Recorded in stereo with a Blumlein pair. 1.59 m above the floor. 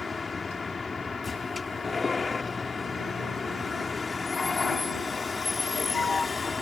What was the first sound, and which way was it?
A vehicle, 10° left.